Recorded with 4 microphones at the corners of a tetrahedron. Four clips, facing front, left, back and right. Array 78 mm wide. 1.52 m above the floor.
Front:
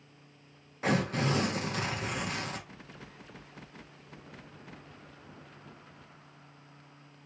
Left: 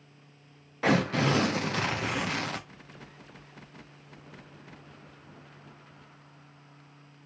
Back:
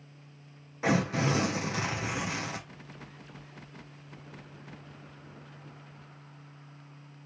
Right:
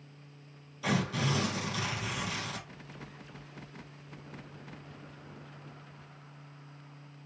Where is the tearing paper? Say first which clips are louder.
Left 6 dB, back 2 dB; 100° left, 0.9 m.